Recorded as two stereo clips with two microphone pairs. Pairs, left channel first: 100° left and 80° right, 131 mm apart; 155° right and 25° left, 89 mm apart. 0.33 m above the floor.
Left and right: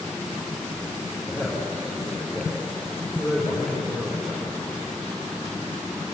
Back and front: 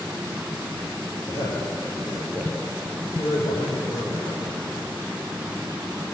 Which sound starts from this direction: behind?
A man speaking, at 1.3 s.